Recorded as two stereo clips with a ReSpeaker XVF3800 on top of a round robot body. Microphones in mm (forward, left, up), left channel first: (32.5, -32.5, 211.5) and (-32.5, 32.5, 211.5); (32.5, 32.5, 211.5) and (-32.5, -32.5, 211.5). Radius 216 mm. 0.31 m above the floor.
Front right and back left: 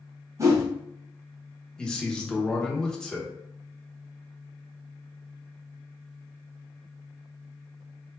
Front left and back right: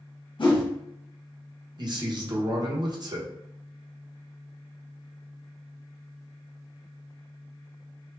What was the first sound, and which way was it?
A whoosh, 80° left.